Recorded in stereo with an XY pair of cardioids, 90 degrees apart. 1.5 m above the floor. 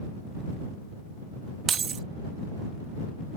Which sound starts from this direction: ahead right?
Keys jangling, at 1.7 s.